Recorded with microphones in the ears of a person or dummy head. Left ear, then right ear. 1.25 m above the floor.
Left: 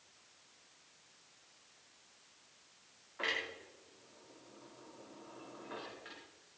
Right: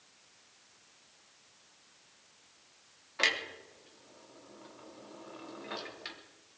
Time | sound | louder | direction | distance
3.2 | a clunk | right 7 dB | 70° right (ahead or behind) | 3.5 m